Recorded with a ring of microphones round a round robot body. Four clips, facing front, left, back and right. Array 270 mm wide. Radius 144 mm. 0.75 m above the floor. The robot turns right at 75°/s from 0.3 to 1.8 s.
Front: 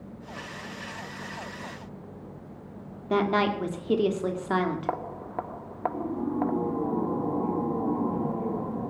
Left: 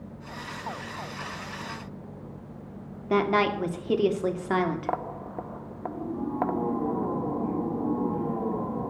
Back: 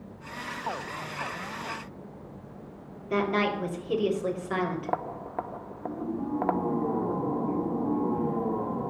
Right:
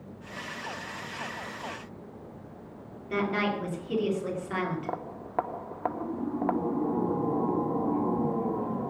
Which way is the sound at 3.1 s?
55° left.